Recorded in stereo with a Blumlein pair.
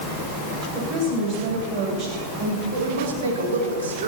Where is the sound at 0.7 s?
35° right, 8.5 m.